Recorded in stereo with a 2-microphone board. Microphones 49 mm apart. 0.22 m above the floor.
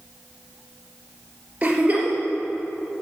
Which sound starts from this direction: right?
A giggle, at 1.6 s.